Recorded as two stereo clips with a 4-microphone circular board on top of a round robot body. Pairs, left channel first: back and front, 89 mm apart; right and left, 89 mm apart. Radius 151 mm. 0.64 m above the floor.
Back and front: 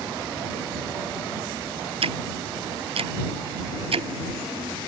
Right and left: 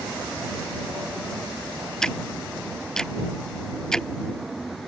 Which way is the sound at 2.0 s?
5° right.